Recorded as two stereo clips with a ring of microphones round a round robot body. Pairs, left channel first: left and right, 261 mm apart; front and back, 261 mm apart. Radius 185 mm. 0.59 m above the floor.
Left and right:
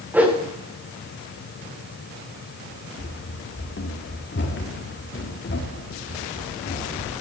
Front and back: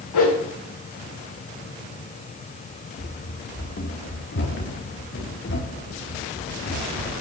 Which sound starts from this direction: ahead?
A whoosh, at 0.1 s.